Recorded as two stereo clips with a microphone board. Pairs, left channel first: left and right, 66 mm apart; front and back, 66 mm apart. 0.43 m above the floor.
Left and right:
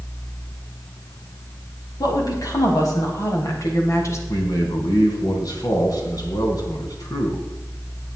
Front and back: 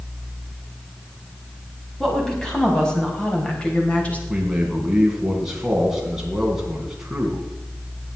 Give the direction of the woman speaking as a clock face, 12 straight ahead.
9 o'clock.